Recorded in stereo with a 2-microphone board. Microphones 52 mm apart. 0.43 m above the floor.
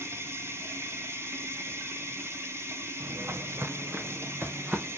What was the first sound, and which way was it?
Running water, 55° right (ahead or behind).